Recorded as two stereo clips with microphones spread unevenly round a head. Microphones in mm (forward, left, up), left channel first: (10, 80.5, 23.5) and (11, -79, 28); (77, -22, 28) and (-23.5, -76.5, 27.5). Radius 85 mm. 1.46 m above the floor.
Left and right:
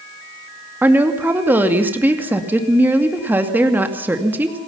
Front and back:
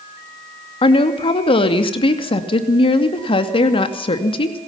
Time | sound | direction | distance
0.8 | a woman speaking | 10° right | 2.5 m